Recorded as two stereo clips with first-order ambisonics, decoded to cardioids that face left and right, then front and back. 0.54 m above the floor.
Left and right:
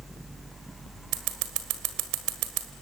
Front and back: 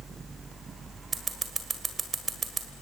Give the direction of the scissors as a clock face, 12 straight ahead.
4 o'clock.